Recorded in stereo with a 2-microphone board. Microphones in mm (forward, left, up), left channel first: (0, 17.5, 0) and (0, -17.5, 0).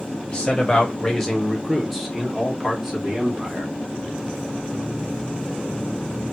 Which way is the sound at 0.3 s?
25° left (ahead or behind).